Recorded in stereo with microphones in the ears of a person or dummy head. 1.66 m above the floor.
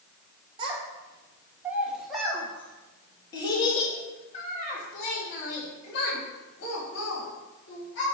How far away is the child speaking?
About 1.8 m.